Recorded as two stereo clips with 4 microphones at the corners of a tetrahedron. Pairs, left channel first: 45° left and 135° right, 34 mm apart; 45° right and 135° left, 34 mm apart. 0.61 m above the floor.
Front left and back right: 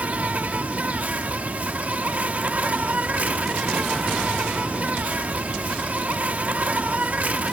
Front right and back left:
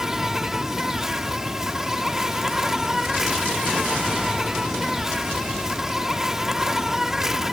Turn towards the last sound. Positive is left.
turn(degrees=-145)